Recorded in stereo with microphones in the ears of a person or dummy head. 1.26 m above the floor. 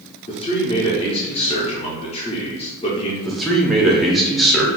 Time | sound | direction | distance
0.3 | a man speaking | 30° left (ahead or behind) | 0.6 m
3.2 | a man speaking | centre (ahead or behind) | 0.6 m